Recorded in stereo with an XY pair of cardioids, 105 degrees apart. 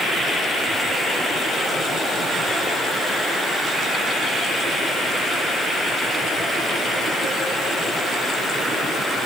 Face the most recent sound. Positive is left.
No sound to turn to.